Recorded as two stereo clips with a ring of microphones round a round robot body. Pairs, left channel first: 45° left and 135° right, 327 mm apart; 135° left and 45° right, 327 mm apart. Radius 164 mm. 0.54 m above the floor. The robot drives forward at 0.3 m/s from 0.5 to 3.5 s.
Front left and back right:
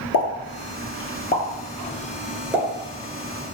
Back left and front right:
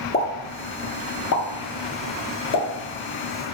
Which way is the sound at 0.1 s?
70° left.